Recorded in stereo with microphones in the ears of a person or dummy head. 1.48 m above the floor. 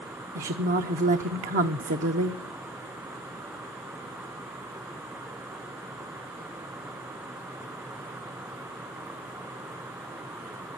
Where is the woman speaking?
40° right (ahead or behind), 0.7 m.